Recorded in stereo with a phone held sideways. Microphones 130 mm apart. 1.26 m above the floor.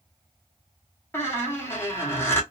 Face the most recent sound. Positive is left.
turn(degrees=20)  # may be behind; listen again after turning